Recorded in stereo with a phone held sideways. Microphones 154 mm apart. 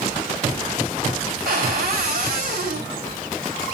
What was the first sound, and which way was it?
A cupboard door, 75° right (ahead or behind).